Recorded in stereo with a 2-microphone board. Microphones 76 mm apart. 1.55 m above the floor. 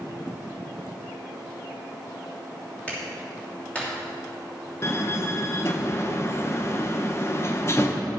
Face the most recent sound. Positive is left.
turn(degrees=35)  # may be behind; listen again after turning